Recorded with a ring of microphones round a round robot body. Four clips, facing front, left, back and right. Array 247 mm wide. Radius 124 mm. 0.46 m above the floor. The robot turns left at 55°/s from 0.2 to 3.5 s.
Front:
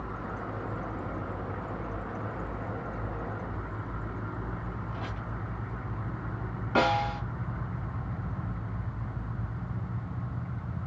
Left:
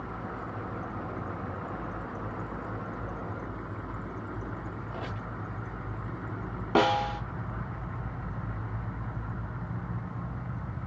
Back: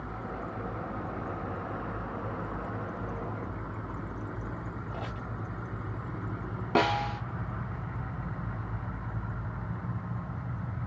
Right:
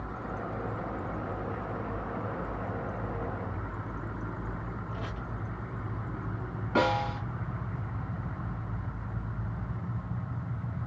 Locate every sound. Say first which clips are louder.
4.9 s a squeak: left 1 dB, even; 145° left, 2 m
6.8 s a snare drum: left 2 dB, front 1 dB; 125° left, 1.2 m